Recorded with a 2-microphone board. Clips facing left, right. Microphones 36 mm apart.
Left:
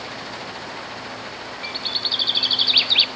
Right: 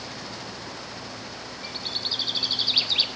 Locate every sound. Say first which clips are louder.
1.6 s a bird: left 6 dB; 50° left (ahead or behind), 0.6 m